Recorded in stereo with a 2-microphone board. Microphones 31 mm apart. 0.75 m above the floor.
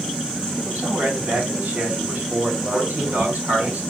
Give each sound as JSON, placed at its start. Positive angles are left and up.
{"t": 0.7, "sound": "a man speaking", "side_deg": -80, "distance_m": 4.5}
{"t": 2.7, "sound": "a man speaking", "side_deg": -75, "distance_m": 4.5}